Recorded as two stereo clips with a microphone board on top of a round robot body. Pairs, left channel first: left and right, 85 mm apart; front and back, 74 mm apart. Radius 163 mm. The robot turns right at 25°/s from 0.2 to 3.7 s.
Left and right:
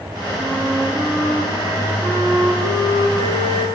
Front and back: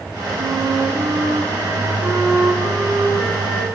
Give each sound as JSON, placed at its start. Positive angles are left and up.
{"t": 0.4, "sound": "a flute", "azimuth_deg": -160, "distance_m": 7.5}